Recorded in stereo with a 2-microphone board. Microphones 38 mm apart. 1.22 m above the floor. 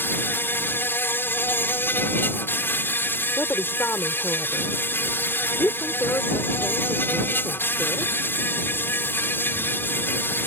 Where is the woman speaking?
80° left.